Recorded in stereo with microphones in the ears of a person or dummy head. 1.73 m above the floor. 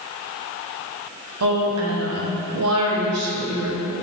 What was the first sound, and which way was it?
A woman speaking, 80° right.